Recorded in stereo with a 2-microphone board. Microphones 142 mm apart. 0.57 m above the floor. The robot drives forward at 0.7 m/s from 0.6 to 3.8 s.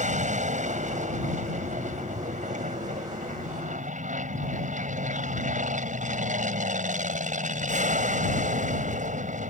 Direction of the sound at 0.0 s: 60° right (ahead or behind).